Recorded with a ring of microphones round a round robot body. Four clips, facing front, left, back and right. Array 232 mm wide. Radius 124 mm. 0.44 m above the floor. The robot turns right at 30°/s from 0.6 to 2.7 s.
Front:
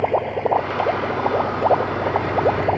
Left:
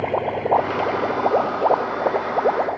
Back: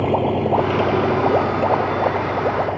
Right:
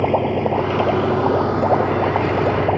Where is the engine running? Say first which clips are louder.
Right 4 dB, back 2 dB; 140° right; by 2.8 s 80° right.